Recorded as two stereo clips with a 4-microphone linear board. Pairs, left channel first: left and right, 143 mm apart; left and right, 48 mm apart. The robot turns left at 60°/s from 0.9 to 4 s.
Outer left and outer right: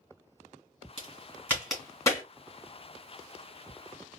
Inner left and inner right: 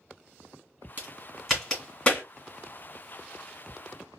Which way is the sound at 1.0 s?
40° right (ahead or behind).